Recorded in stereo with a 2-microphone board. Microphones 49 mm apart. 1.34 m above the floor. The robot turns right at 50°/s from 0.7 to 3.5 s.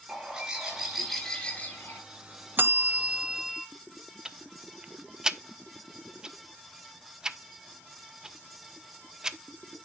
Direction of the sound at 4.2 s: 10° right (ahead or behind).